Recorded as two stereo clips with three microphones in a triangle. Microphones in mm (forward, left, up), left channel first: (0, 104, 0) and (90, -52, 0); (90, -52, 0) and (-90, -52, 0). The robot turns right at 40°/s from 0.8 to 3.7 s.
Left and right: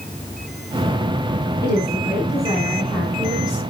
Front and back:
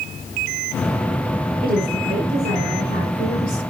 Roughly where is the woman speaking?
Behind left.